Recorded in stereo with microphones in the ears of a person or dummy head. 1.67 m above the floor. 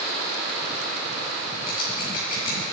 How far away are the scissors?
About 4.5 m.